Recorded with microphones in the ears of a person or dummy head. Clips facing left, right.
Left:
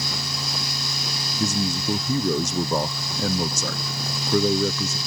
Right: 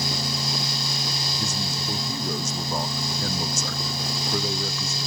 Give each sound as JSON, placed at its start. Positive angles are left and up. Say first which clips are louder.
{"t": 1.4, "sound": "a man speaking", "louder": "left 9 dB", "side_deg": 55}